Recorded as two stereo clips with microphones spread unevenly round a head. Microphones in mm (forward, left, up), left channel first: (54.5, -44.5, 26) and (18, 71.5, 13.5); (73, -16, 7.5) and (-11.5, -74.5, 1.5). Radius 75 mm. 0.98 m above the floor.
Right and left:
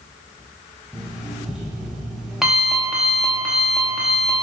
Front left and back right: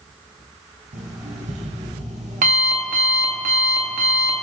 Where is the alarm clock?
165° right, 0.8 m.